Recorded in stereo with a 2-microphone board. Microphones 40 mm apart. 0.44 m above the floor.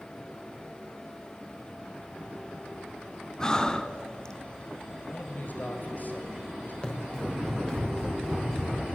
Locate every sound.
3.4 s breathing: 20° left (ahead or behind), 1.2 m
5.1 s a man speaking: 50° left (ahead or behind), 2.5 m
6.8 s running footsteps: 30° left (ahead or behind), 6.5 m; by 8.8 s 10° left (ahead or behind), 6 m